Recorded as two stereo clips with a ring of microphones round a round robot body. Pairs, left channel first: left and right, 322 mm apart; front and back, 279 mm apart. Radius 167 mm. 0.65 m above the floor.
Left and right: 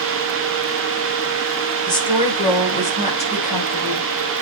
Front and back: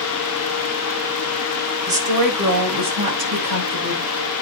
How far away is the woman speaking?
About 4 m.